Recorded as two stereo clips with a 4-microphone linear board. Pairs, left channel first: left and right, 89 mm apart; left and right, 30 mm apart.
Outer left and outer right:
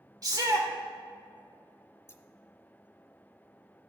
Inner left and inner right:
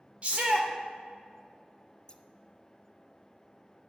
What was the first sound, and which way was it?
A shout, 45° right (ahead or behind).